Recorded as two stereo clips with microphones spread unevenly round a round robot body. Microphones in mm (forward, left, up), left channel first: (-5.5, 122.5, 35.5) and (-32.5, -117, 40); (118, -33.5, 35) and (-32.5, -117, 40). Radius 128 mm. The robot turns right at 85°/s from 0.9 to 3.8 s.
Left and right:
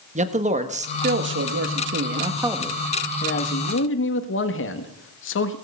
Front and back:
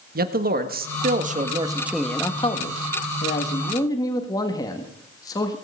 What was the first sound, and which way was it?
A man speaking, 150° right.